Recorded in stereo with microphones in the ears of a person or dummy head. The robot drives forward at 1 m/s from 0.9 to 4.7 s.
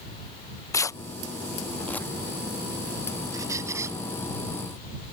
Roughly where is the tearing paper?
Centre.